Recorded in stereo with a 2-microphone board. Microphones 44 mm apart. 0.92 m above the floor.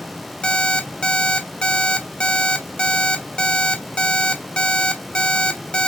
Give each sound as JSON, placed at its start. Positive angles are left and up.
{"t": 0.4, "sound": "an alarm clock", "side_deg": 20, "distance_m": 1.1}